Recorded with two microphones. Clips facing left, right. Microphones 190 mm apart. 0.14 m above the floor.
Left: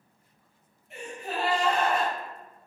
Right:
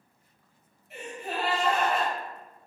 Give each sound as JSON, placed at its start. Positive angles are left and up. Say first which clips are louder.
{"t": 0.9, "sound": "a gasp", "louder": "even", "side_deg": -5, "distance_m": 1.5}